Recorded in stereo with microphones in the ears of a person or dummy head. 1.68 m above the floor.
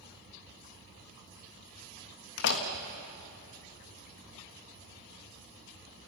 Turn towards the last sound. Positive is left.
turn(degrees=60)  # may be behind; listen again after turning